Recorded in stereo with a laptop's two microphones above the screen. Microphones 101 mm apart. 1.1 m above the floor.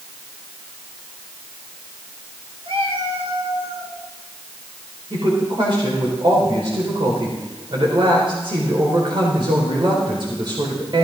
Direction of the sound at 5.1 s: 55° right (ahead or behind).